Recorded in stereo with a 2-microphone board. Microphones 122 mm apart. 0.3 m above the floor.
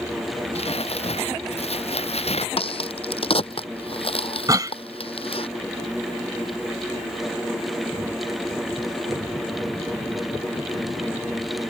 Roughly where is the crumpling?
Left.